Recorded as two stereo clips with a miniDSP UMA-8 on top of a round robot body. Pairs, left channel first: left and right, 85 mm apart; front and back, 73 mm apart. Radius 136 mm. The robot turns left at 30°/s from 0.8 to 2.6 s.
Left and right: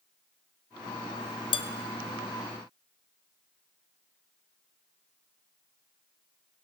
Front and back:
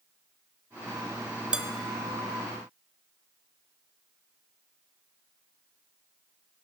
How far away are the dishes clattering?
About 0.7 m.